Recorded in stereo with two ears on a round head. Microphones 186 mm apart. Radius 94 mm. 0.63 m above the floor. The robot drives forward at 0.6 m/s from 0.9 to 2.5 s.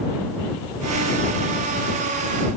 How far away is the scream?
I don't hear a scream.